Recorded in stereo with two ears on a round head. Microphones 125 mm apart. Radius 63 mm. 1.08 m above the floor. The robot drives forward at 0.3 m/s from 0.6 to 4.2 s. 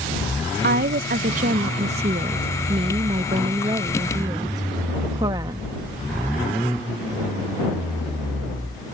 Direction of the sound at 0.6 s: 75° right (ahead or behind).